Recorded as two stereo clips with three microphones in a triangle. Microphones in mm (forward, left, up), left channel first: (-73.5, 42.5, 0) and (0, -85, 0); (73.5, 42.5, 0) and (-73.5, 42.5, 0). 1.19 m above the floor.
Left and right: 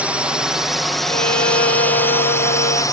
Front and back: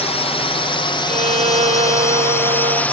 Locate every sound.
0.0 s a drone: 20° left; by 3.0 s 75° left
1.1 s a violin: 135° left